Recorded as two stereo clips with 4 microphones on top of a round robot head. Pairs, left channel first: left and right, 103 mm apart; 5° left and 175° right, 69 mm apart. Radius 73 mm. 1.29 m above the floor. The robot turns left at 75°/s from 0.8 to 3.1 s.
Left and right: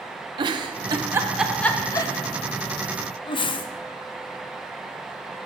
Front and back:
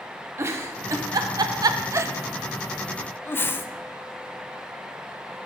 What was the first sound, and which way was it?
A giggle, 130° right.